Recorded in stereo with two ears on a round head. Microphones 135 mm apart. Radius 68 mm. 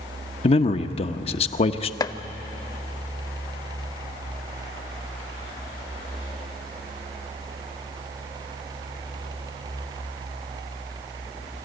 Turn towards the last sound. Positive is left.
turn(degrees=25)  # may be behind; listen again after turning